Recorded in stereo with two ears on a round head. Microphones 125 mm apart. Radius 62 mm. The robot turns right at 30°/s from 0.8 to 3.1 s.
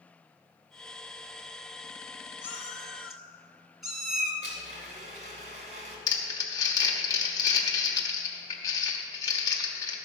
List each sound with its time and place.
2.4 s a cat meowing: 15° left (ahead or behind), 1.5 m; by 4.3 s centre (ahead or behind), 1.5 m
4.4 s a blender: 55° right (ahead or behind), 2 m
6.1 s crumpling: 25° left (ahead or behind), 1.3 m